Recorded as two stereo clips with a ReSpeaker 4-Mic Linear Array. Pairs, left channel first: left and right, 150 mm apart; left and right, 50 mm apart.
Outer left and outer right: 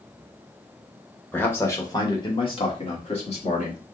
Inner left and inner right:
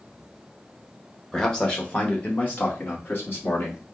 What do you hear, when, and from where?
1.3 s a man speaking: 10° left (ahead or behind), 1.3 m; by 3.8 s 50° left (ahead or behind), 2 m